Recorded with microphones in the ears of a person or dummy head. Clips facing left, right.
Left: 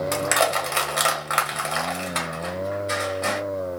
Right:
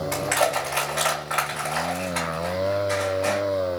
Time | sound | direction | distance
0.1 | crushing | 60° left (ahead or behind) | 1.6 m